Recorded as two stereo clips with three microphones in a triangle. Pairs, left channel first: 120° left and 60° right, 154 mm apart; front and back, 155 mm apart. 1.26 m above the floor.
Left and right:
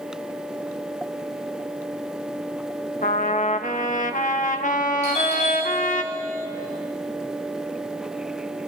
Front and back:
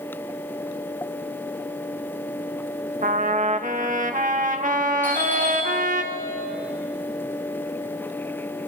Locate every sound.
3.0 s a trumpet: 150° left, 1.1 m
5.0 s a doorbell: 80° left, 6 m